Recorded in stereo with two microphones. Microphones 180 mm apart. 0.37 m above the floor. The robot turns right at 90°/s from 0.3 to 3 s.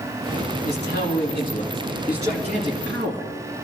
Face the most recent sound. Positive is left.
turn(degrees=-95)